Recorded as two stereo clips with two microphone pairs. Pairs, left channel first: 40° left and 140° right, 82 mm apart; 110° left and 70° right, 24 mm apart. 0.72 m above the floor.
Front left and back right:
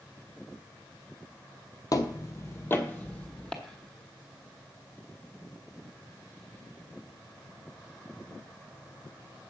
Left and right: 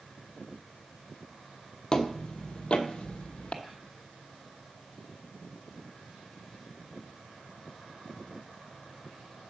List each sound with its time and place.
1.9 s footsteps: 60° left, 1.1 m; by 3.5 s 120° left, 1.3 m
3.6 s whispering: 45° right, 6 m